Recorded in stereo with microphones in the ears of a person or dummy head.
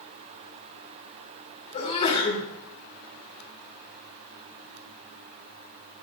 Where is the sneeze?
35° left (ahead or behind), 6 m.